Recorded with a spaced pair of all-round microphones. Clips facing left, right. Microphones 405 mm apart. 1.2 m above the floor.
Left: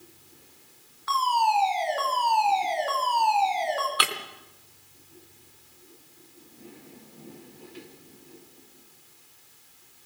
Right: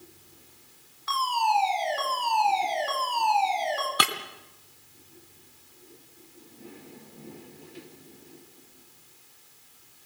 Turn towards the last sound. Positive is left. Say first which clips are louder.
# right 2 dB
turn(degrees=-60)  # may be behind; listen again after turning